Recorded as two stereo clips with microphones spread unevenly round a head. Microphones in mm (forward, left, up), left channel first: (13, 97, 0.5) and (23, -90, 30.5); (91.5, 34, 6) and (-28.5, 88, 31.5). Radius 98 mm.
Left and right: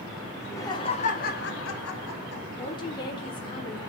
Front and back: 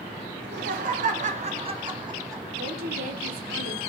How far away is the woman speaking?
About 1.6 m.